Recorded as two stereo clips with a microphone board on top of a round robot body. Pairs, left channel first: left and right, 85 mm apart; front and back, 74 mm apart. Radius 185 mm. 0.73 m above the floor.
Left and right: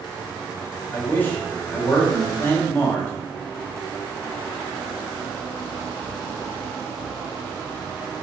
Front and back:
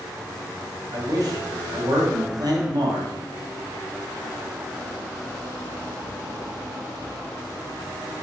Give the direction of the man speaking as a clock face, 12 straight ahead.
7 o'clock.